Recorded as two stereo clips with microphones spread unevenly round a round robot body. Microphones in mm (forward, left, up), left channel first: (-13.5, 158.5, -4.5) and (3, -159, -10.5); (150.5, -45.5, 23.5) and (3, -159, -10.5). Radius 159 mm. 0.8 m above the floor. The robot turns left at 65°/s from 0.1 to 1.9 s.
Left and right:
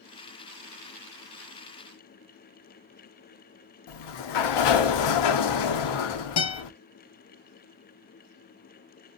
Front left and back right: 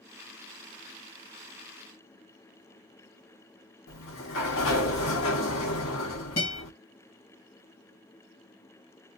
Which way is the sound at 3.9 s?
75° left.